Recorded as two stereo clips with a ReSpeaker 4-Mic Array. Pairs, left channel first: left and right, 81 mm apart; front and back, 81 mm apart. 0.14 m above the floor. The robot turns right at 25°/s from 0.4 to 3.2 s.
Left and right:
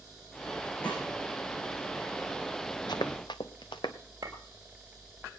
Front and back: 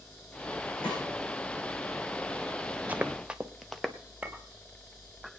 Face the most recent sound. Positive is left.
turn(degrees=-115)